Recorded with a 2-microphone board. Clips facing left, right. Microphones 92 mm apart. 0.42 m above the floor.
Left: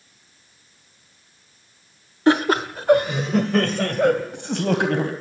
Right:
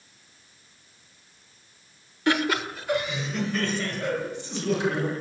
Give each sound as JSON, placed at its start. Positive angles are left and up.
{"t": 2.3, "sound": "laughter", "side_deg": 35, "distance_m": 1.1}